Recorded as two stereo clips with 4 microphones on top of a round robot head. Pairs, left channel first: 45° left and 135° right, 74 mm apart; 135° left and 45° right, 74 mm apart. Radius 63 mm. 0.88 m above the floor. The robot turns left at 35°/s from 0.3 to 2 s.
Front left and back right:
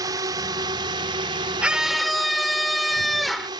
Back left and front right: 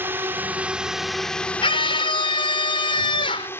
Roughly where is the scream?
Behind left.